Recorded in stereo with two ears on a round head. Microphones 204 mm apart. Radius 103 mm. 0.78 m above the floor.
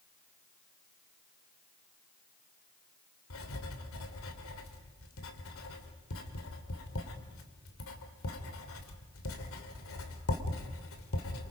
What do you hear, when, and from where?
3.3 s writing: 60° left (ahead or behind), 2.5 m